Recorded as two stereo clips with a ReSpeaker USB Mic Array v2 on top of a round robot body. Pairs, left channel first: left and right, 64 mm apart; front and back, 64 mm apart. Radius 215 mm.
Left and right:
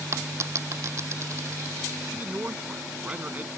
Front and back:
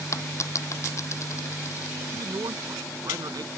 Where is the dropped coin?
45° right.